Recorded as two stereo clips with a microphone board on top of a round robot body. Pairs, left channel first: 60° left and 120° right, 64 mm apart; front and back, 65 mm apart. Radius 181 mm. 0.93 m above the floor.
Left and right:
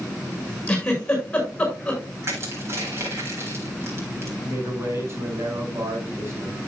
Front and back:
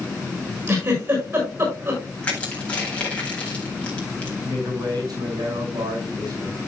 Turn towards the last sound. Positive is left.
turn(degrees=-170)